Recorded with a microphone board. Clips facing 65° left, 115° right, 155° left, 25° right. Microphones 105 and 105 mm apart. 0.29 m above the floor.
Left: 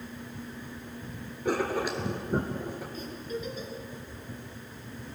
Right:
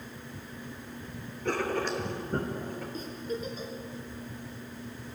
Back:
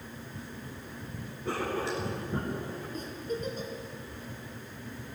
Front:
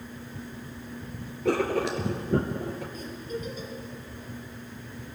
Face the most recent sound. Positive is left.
turn(degrees=-165)